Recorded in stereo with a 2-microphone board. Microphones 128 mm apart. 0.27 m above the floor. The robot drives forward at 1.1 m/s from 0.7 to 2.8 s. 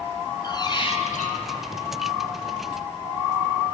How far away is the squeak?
About 0.8 m.